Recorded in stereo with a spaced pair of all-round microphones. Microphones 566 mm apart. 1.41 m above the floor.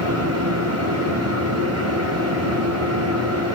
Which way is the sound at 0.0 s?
25° right (ahead or behind).